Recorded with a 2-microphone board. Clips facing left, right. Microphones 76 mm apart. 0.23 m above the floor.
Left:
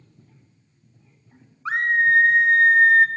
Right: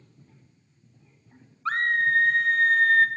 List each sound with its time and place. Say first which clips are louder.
1.6 s a scream: left 4 dB; 15° left (ahead or behind), 1.0 m